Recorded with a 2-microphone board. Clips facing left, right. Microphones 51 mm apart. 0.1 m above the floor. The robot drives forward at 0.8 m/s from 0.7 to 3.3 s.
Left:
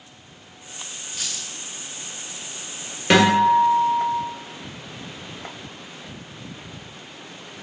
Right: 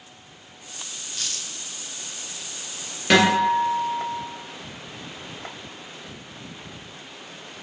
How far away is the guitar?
About 1.9 m.